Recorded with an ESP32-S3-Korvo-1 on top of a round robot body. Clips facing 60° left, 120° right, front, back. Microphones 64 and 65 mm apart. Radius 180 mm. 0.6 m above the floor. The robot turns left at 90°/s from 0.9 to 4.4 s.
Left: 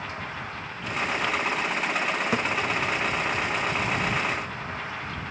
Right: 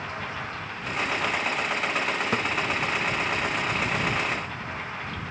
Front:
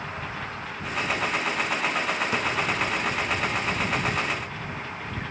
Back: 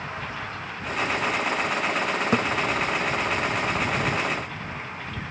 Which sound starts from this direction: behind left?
A thud, at 2.3 s.